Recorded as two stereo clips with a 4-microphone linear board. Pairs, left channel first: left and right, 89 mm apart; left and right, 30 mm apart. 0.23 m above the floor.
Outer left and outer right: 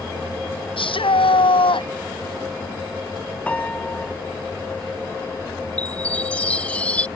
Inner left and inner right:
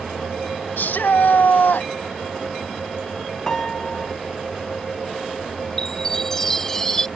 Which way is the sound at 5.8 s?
15° left (ahead or behind).